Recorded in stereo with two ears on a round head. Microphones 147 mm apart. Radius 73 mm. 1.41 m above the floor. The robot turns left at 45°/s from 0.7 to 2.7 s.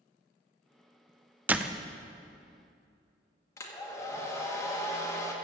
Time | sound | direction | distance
1.5 | a door slam | 10° right (ahead or behind) | 0.5 m
3.6 | a hair dryer | 20° left (ahead or behind) | 1.5 m